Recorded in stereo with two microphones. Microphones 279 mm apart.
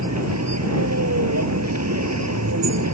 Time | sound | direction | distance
0.0 | a vehicle | 85° right | ?